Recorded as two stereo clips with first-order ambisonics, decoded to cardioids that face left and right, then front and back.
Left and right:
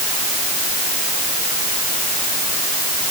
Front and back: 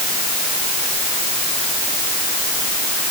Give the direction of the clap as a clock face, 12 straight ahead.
I don't hear a clap.